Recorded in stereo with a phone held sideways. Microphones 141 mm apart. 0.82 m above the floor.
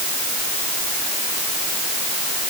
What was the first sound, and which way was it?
Only background noise.